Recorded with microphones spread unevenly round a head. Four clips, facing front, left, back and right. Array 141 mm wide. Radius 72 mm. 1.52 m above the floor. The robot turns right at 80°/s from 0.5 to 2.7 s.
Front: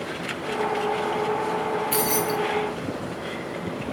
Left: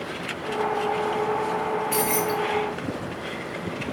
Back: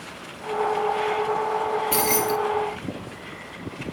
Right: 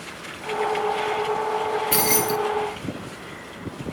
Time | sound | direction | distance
1.9 | keys jangling | 120° right | 0.6 m